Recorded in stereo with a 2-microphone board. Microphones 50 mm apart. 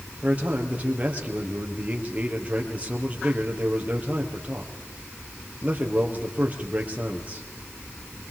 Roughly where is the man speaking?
Right.